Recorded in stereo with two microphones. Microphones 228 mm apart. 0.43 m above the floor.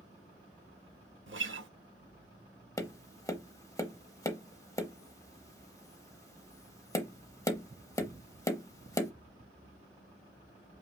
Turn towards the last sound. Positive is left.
turn(degrees=15)  # may be behind; listen again after turning